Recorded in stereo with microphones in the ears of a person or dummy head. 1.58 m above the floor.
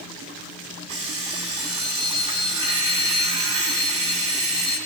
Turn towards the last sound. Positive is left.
turn(degrees=-30)  # may be behind; listen again after turning